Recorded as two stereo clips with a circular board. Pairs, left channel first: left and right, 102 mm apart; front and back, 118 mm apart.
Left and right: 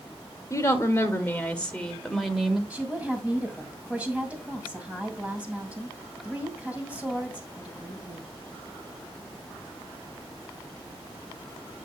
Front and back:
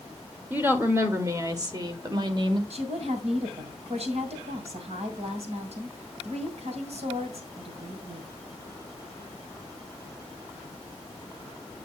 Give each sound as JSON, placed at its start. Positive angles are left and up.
{"t": 0.5, "sound": "a woman speaking", "azimuth_deg": 120, "distance_m": 1.4}
{"t": 2.7, "sound": "a woman speaking", "azimuth_deg": -165, "distance_m": 2.0}